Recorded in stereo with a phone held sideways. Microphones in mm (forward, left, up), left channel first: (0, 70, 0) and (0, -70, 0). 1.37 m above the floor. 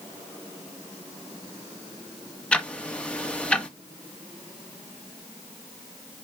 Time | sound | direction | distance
2.5 | ticking | 10° left (ahead or behind) | 0.8 m